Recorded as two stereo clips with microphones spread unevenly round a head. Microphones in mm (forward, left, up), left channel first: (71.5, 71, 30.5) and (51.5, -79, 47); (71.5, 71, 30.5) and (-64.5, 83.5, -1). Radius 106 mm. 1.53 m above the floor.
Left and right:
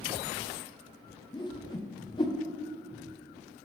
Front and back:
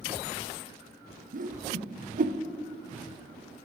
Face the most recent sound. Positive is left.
turn(degrees=150)